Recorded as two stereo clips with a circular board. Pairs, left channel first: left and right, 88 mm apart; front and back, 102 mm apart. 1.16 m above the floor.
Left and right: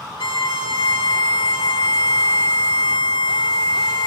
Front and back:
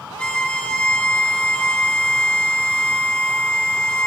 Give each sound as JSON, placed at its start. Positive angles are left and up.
{"t": 0.2, "sound": "a violin", "azimuth_deg": 80, "distance_m": 1.9}